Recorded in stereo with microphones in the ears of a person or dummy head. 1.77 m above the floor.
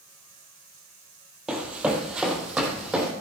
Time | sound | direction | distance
1.5 | running footsteps | 10° right (ahead or behind) | 2.0 m